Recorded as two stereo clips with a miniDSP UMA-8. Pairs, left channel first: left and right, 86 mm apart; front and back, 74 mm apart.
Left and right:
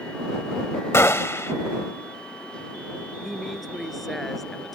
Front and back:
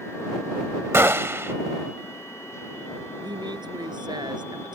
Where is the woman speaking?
Straight behind.